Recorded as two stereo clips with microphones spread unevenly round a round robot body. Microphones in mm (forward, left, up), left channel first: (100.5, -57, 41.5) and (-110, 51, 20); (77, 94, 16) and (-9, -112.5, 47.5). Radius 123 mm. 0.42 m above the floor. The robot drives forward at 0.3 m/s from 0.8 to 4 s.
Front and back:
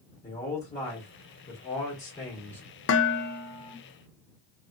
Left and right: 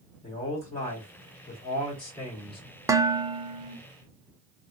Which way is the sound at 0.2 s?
30° left.